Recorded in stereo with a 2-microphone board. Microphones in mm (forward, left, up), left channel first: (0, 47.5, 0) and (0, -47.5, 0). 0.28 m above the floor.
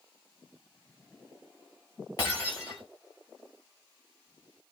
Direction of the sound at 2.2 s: 40° left (ahead or behind).